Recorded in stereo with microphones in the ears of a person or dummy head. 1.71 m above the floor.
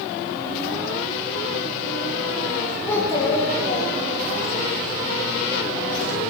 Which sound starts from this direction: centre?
A child speaking, at 2.9 s.